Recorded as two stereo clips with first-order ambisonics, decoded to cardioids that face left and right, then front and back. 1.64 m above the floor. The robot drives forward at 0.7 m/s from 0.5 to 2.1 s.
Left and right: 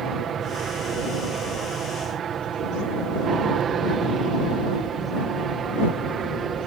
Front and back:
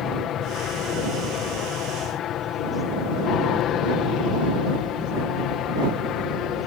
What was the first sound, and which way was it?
An aircraft, 40° right.